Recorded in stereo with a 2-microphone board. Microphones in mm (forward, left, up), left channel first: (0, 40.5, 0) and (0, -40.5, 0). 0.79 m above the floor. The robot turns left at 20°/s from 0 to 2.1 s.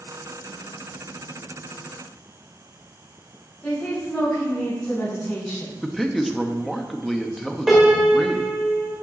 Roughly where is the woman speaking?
Left.